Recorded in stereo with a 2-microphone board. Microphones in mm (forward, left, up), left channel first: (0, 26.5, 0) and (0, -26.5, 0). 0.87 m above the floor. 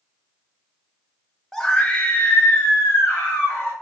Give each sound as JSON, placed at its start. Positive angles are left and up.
{"t": 1.5, "sound": "a scream", "side_deg": 5, "distance_m": 0.7}